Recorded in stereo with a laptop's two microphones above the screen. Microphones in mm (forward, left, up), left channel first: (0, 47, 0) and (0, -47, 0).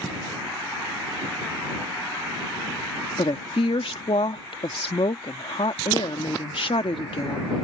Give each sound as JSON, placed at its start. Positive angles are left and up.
{"t": 3.2, "sound": "a woman speaking", "side_deg": 70}